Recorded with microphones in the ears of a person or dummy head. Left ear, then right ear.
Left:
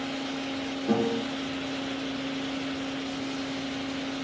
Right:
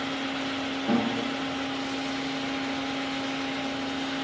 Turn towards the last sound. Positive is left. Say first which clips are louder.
# left 1 dB
turn(degrees=-40)  # may be behind; listen again after turning